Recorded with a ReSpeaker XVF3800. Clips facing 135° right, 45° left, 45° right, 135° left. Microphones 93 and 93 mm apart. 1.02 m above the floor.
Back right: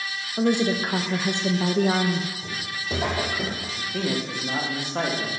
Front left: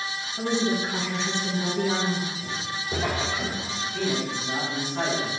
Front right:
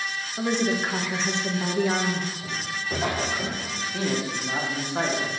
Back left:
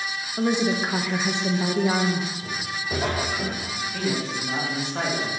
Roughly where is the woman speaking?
Behind right.